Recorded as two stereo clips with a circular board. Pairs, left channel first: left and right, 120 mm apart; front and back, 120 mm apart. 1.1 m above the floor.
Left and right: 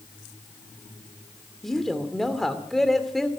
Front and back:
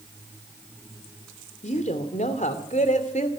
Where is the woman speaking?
Straight ahead, 2.5 m.